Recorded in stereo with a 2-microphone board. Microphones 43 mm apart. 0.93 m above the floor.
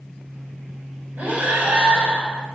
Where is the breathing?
40° right (ahead or behind), 2.5 m.